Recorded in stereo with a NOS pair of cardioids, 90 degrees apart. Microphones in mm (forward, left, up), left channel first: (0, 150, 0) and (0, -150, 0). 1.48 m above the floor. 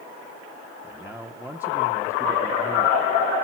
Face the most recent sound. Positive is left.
turn(degrees=-5)